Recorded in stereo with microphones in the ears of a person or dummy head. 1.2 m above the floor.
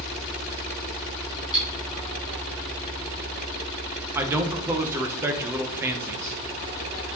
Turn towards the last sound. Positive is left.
turn(degrees=-15)  # may be behind; listen again after turning